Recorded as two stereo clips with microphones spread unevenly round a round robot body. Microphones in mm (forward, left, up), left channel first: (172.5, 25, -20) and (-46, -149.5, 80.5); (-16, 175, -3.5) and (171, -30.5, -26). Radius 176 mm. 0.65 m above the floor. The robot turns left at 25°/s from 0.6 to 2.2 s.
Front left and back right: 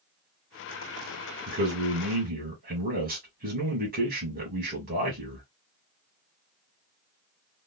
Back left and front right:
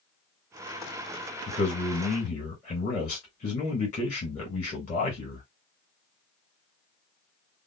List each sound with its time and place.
1.5 s a man speaking: 170° left, 1.2 m; by 5.5 s 155° left, 1.2 m